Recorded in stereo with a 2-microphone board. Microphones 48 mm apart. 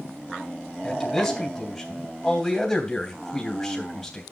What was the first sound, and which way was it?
A man speaking, 10° left (ahead or behind).